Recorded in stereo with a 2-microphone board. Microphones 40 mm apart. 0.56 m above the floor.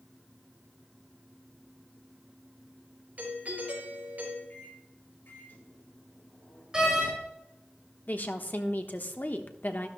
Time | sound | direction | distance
3.2 | a doorbell | 40° right (ahead or behind) | 4.5 m
4.5 | a microwave | 55° left (ahead or behind) | 4 m
6.7 | a door slam | 15° right (ahead or behind) | 6 m
8.1 | a woman speaking | 45° left (ahead or behind) | 1.0 m